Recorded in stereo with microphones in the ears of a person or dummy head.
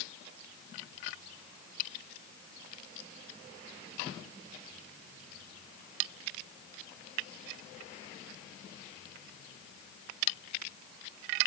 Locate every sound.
Only background noise.